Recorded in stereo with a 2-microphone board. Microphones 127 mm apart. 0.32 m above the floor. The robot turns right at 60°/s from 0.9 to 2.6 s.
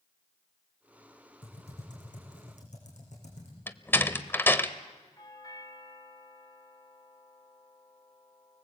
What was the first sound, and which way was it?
Typing on a keyboard, 45° left.